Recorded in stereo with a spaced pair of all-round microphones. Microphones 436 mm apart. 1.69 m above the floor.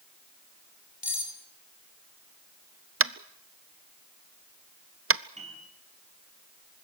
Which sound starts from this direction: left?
Cutlery clinking, at 1.0 s.